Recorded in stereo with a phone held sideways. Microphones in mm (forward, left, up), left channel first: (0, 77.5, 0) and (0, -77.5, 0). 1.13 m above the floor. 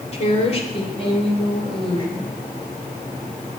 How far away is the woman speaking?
About 3.5 m.